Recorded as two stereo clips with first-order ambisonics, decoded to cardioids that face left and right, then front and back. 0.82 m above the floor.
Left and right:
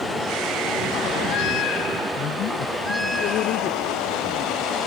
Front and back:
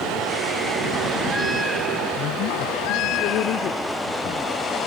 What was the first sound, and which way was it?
A man speaking, 45° left.